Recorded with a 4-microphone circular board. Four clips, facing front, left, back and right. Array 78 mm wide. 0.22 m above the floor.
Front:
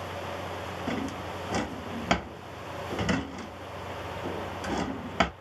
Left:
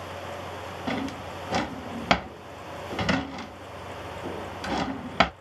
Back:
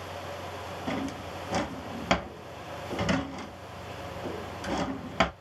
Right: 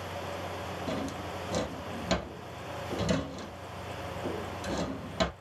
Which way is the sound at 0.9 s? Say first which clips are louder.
Left 6 dB, even; 90° left.